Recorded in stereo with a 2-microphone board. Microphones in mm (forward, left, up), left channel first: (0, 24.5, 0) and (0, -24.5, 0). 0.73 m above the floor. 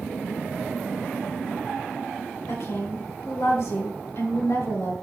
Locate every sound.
2.5 s a woman speaking: 75° left (ahead or behind), 2.5 m